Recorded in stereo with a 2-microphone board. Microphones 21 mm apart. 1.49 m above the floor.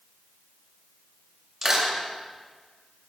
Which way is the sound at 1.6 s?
25° right (ahead or behind).